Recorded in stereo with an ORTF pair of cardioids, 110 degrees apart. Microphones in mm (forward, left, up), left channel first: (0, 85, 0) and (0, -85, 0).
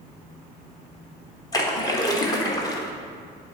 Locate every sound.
1.5 s a splash: 20° left, 0.9 m